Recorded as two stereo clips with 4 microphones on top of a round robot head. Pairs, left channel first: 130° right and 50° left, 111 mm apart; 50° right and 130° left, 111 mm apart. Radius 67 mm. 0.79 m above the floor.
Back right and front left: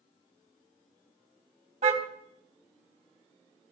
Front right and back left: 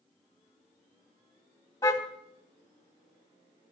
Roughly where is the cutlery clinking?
No cutlery clinking in this recording.